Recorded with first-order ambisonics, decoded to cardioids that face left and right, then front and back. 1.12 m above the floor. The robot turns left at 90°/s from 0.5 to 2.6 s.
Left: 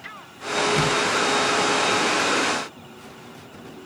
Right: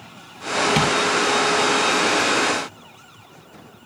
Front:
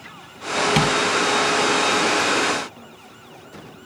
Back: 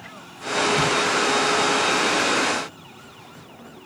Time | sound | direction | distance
0.8 | tapping | 35° right | 6 m